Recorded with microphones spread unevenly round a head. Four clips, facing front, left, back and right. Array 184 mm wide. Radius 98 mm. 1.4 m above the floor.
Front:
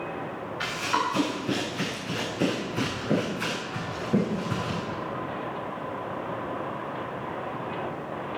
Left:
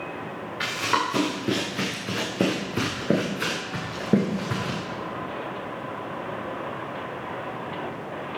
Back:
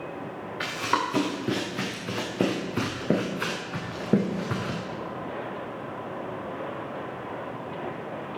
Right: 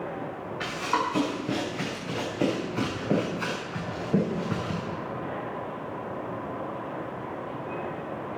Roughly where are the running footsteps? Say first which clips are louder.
Left 2 dB, back 1 dB; behind left.